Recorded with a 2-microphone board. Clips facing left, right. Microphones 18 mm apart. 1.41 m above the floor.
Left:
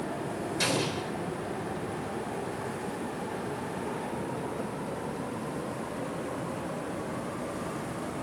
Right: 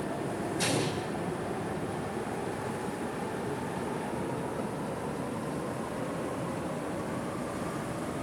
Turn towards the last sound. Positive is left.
turn(degrees=30)  # may be behind; listen again after turning